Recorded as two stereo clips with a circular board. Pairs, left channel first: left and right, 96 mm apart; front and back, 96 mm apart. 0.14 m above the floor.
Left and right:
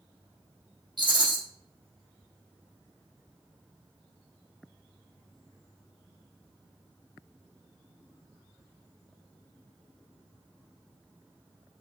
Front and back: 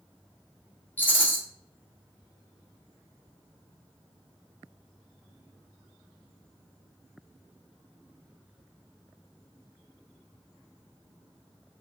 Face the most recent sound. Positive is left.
turn(degrees=-65)